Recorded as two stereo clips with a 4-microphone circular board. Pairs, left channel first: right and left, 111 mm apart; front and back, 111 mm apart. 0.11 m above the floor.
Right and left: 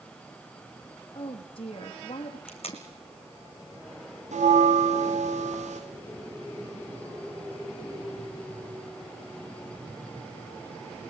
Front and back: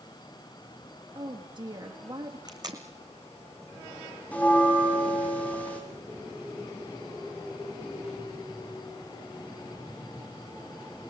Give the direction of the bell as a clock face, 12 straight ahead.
9 o'clock.